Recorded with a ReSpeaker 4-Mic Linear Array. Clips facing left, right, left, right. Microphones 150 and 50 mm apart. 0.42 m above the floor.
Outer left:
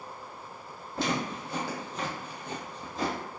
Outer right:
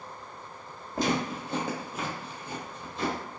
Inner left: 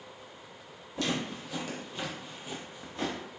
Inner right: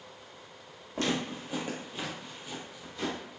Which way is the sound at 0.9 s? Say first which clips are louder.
Outer right 3 dB, inner right 1 dB; 45° right (ahead or behind).